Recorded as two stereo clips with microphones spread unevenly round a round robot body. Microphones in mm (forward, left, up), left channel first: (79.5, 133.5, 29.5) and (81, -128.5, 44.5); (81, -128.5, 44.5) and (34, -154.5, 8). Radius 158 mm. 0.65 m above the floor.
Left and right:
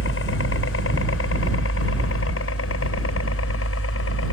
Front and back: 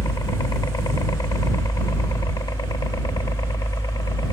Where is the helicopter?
60° left.